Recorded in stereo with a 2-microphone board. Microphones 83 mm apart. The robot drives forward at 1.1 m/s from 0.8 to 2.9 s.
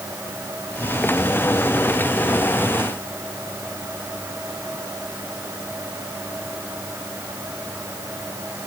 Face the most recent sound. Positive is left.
No sound to turn to.